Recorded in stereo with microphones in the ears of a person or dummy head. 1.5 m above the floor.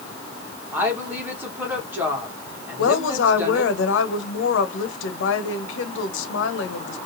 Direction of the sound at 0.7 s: 10° right (ahead or behind).